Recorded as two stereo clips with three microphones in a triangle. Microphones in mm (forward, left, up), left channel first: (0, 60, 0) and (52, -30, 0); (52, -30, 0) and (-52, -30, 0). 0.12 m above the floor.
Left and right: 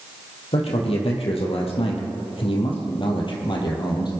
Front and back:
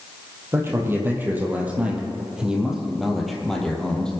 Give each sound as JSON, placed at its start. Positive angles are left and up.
{"t": 0.5, "sound": "a man speaking", "azimuth_deg": 115, "distance_m": 3.0}